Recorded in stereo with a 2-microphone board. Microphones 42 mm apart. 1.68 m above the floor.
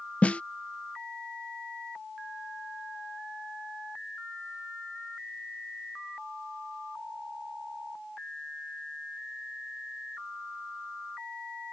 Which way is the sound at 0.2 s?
35° left (ahead or behind).